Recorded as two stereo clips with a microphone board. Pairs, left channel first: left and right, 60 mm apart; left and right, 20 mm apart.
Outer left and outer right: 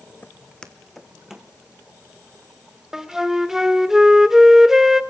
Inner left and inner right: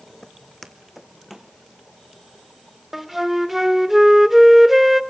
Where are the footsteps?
25° left (ahead or behind), 1.1 m; by 1.5 s 10° right (ahead or behind), 1.8 m.